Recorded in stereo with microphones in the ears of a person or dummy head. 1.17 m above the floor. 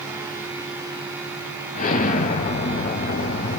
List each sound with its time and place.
1.8 s an explosion: 45° left (ahead or behind), 2.5 m